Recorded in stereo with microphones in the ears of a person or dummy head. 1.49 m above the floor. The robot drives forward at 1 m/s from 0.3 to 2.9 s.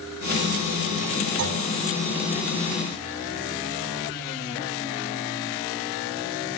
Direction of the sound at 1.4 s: 75° right (ahead or behind).